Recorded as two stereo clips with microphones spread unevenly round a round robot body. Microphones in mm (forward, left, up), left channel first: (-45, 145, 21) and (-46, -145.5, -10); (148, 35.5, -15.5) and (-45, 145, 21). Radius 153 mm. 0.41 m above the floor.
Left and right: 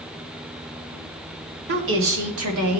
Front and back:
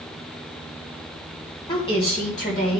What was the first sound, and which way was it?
A woman speaking, 85° right.